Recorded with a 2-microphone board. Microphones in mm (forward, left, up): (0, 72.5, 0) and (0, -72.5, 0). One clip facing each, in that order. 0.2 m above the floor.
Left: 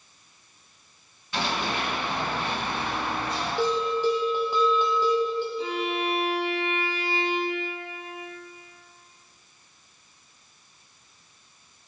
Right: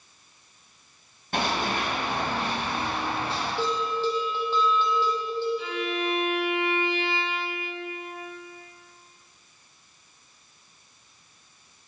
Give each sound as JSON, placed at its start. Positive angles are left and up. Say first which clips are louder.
{"t": 1.3, "sound": "running footsteps", "louder": "right 2 dB", "side_deg": -55, "distance_m": 3.0}
{"t": 3.6, "sound": "a bell", "louder": "left 4 dB", "side_deg": 15, "distance_m": 2.0}
{"t": 5.6, "sound": "a violin", "louder": "left 1 dB", "side_deg": 40, "distance_m": 1.5}